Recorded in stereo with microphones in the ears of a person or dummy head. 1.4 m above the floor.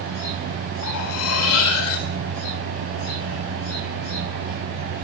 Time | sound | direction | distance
0.8 | cutlery clinking | 75° left (ahead or behind) | 1.9 m